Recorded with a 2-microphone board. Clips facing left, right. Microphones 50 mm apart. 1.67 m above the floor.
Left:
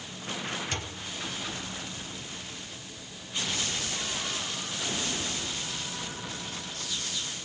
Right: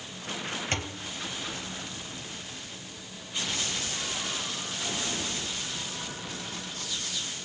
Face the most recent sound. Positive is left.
turn(degrees=-35)  # may be behind; listen again after turning